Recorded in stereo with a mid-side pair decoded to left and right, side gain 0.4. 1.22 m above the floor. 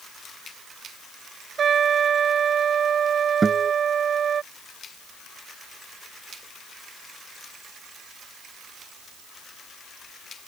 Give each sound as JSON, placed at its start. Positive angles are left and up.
{"t": 1.6, "sound": "a trumpet", "azimuth_deg": -55}
{"t": 3.4, "sound": "a guitar", "azimuth_deg": -30}